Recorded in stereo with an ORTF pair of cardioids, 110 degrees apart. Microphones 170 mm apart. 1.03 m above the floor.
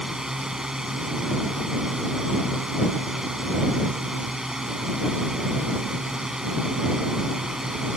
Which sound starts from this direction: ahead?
A drone, at 0.0 s.